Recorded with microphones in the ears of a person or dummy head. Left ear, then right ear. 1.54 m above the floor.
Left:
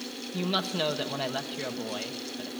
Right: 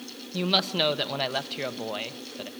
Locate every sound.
0.3 s a woman speaking: 35° right (ahead or behind), 1.3 m